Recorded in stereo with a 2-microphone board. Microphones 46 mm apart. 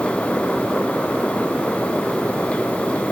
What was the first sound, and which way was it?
Only background noise.